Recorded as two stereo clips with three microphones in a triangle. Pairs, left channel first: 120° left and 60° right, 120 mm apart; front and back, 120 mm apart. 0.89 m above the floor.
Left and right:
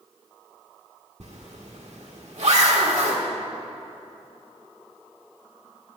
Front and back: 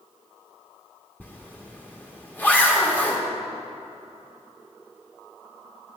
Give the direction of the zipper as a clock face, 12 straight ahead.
2 o'clock.